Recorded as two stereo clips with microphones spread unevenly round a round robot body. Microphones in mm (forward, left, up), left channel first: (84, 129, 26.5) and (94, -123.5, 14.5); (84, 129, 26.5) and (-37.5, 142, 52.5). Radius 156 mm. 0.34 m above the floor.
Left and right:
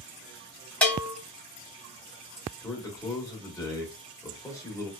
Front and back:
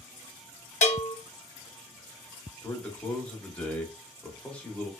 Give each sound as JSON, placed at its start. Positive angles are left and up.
{"t": 0.8, "sound": "a bell", "azimuth_deg": 5, "distance_m": 0.8}
{"t": 2.6, "sound": "a man speaking", "azimuth_deg": 25, "distance_m": 0.9}